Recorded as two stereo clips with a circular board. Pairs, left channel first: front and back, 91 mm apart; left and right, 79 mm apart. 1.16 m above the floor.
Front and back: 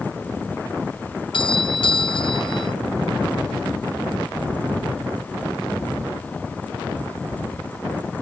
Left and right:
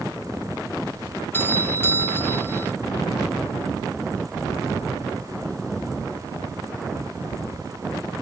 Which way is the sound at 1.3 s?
25° left.